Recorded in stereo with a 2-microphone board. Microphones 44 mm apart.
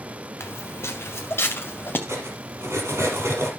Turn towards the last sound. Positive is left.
turn(degrees=-75)  # may be behind; listen again after turning